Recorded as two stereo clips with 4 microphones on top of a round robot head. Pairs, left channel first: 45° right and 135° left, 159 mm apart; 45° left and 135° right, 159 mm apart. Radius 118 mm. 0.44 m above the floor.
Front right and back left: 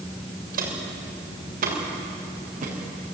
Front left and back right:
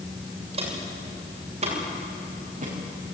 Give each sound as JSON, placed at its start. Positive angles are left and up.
{"t": 0.5, "sound": "footsteps", "azimuth_deg": 170, "distance_m": 7.5}